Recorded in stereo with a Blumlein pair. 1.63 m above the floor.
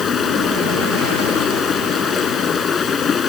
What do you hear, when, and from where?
0.0 s running water: 20° left